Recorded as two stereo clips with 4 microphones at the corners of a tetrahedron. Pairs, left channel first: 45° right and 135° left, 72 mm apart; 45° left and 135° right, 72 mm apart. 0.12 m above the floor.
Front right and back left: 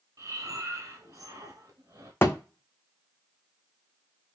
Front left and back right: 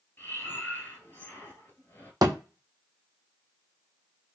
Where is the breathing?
100° left, 1.6 m.